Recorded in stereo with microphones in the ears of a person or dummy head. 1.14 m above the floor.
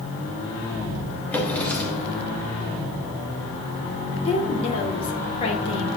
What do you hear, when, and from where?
1.3 s a drawer: centre (ahead or behind), 2.5 m
4.2 s a woman speaking: 25° left (ahead or behind), 2.5 m